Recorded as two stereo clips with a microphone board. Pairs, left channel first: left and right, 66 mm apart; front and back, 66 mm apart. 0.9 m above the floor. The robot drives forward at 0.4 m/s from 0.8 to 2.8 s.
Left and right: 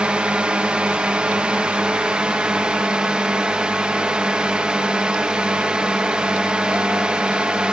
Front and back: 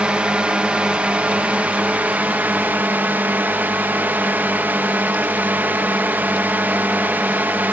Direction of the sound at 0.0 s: 130° right.